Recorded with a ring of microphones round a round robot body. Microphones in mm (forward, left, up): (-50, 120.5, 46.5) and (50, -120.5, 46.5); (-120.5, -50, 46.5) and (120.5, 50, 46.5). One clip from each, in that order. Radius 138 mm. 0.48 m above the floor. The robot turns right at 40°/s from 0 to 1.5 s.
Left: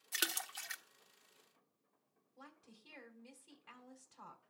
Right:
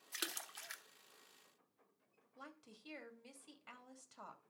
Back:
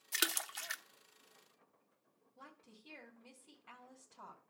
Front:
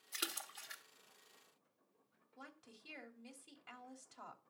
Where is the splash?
165° left, 1.0 m; by 0.8 s 165° right, 1.0 m.